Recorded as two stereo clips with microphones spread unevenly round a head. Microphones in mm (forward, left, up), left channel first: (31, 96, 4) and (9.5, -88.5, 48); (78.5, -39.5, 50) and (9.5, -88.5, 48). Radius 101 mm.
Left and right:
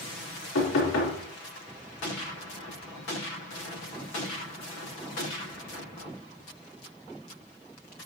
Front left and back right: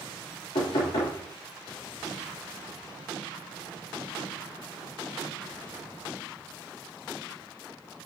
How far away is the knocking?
About 4 m.